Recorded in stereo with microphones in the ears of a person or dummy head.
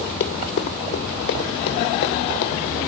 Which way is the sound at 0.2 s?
50° left (ahead or behind).